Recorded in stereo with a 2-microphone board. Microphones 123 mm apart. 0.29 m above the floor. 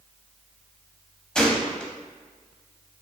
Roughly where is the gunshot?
Centre.